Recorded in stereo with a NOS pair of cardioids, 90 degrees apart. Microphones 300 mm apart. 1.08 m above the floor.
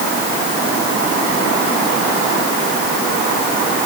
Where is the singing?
No singing in this recording.